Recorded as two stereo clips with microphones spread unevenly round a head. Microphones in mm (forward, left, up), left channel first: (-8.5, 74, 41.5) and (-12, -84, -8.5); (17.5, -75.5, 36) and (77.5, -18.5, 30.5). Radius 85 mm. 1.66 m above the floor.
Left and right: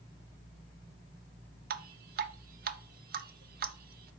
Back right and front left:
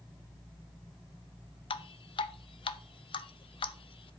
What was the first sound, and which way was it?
Dripping, 125° right.